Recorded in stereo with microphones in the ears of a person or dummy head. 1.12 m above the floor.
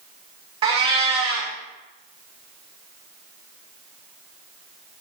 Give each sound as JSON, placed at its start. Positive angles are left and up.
{"t": 0.6, "sound": "a cat meowing", "side_deg": -30, "distance_m": 0.7}